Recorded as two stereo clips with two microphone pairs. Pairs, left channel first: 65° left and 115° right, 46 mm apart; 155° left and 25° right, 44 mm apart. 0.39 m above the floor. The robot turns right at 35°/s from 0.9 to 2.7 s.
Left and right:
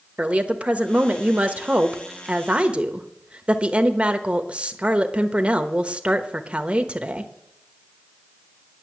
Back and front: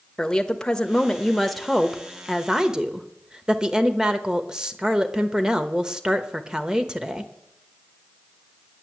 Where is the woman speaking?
140° right, 1.0 m; by 7.3 s 75° right, 1.0 m.